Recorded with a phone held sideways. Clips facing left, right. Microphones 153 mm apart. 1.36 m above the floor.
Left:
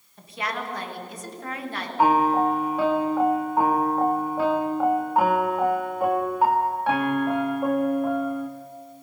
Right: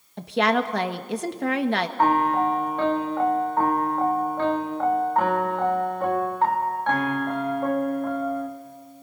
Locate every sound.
0.2 s a woman speaking: 70° right (ahead or behind), 1.4 m
2.0 s a piano: 10° left (ahead or behind), 1.7 m